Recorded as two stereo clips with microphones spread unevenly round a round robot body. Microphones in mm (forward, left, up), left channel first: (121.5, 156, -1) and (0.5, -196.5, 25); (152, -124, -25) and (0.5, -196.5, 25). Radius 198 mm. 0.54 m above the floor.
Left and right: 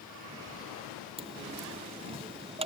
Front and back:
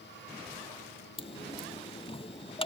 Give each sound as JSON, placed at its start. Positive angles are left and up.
{"t": 1.2, "sound": "a dropped coin", "azimuth_deg": -35}